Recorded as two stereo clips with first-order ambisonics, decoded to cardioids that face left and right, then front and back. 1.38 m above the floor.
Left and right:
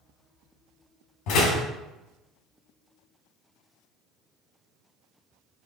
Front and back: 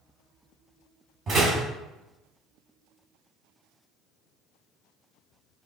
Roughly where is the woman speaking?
No woman speaking in this recording.